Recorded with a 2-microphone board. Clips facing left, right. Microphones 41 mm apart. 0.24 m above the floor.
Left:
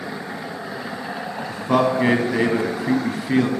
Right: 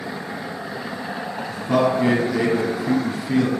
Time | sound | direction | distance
1.5 | a man speaking | 35° left (ahead or behind) | 1.3 m